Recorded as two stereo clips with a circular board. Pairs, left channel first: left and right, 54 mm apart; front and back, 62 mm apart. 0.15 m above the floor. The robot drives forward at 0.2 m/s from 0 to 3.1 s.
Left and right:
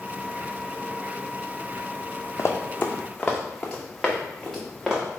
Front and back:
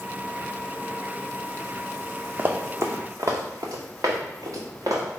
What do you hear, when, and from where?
2.4 s running footsteps: 120° left, 0.6 m; by 5.2 s 175° right, 1.8 m